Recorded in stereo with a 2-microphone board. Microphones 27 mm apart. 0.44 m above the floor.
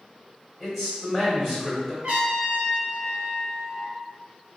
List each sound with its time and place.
0.6 s a man speaking: 15° right (ahead or behind), 1.7 m
2.0 s a trumpet: 65° right (ahead or behind), 1.3 m